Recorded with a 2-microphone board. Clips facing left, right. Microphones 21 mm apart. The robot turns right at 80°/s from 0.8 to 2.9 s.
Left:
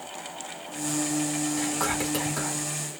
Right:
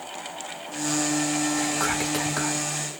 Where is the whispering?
Centre (ahead or behind), 1.3 m; by 2.6 s 25° right (ahead or behind), 1.3 m.